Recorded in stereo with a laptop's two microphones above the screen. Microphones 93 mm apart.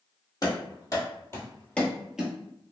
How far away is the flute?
I don't hear a flute.